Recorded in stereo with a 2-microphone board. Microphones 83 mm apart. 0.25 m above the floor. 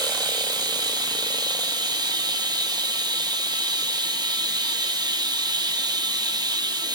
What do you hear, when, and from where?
0.0 s running water: 65° right (ahead or behind), 0.8 m